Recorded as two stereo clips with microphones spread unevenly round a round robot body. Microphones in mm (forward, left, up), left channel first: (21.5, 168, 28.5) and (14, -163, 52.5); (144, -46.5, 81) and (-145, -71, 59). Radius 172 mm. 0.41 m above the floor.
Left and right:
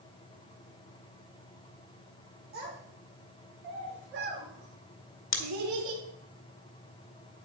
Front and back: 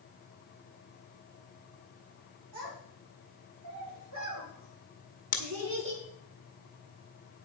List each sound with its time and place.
2.5 s a child speaking: 155° right, 7 m; by 6.0 s 125° right, 2.5 m
5.3 s scissors: 60° left, 1.7 m